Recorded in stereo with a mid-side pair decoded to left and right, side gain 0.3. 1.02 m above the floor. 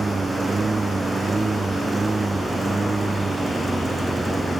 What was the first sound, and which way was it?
A lawn mower, 40° right.